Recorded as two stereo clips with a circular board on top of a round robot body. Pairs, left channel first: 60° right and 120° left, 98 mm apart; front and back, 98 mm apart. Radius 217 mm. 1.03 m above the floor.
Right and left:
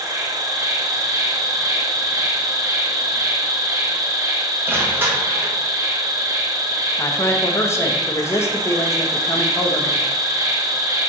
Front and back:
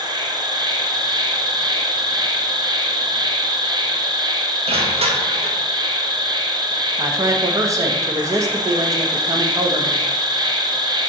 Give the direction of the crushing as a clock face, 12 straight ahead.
6 o'clock.